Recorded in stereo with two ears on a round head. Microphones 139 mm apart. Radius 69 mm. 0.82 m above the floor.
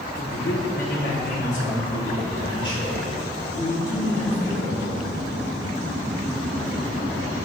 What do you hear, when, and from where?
0.1 s a man speaking: 65° left (ahead or behind), 1.7 m; by 4.8 s 20° left (ahead or behind), 4.5 m